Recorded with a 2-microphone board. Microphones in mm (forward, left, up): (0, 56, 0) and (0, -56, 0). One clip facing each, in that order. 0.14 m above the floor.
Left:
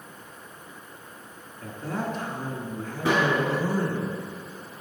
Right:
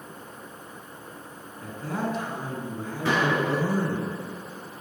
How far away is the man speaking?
About 1.1 m.